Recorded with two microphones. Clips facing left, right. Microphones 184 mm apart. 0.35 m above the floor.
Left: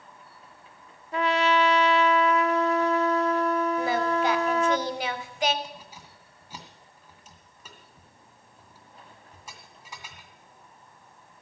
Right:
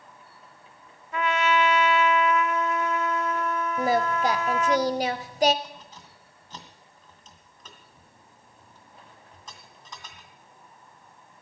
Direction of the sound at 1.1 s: 35° left (ahead or behind).